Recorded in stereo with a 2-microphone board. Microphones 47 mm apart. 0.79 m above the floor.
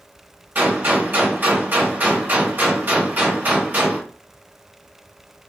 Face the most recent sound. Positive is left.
turn(degrees=-45)  # may be behind; listen again after turning